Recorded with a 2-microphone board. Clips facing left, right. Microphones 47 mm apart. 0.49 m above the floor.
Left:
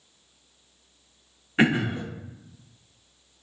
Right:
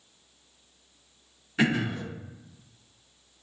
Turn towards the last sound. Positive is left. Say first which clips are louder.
# left 4 dB
turn(degrees=35)  # may be behind; listen again after turning